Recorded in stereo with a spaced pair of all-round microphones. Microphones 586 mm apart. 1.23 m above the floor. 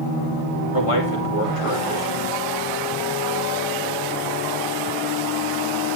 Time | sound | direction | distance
0.7 | a man speaking | 60° left (ahead or behind) | 2.5 m